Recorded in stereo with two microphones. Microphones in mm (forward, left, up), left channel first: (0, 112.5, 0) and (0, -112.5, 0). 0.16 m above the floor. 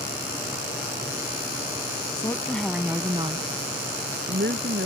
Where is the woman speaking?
20° left (ahead or behind); by 4.9 s 55° right (ahead or behind).